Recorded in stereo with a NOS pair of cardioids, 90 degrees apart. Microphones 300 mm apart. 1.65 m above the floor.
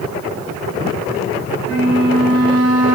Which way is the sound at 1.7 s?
55° right.